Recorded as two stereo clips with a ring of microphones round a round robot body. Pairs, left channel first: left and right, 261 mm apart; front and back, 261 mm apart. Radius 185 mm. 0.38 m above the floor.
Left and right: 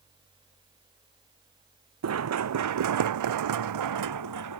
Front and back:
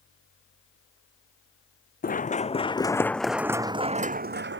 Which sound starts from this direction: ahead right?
Running footsteps, at 2.0 s.